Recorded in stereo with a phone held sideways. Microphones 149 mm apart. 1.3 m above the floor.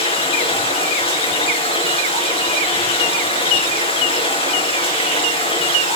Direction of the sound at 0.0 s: 40° left (ahead or behind).